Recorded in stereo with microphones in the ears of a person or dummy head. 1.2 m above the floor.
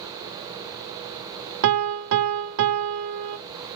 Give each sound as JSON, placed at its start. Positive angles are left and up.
{"t": 1.6, "sound": "a piano", "side_deg": -75, "distance_m": 0.5}